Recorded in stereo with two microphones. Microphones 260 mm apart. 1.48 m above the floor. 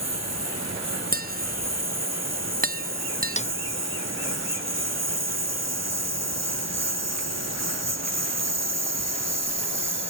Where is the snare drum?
25° left (ahead or behind).